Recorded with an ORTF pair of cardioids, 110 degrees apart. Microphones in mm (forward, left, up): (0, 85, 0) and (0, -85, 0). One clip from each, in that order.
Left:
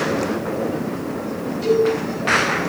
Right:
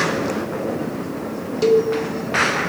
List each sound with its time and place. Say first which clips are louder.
1.6 s a cowbell: right 1 dB; 65° right, 1.3 m